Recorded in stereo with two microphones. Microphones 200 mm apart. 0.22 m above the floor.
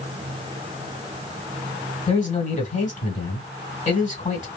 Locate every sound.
2.1 s a man speaking: 35° left (ahead or behind), 1.8 m